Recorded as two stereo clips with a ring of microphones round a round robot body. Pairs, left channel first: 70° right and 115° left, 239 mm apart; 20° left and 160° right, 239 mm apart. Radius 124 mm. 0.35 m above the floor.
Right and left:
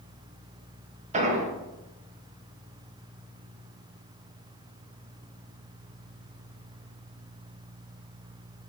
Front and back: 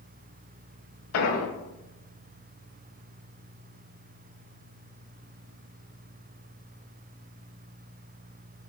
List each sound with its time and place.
1.1 s an explosion: 50° left, 0.7 m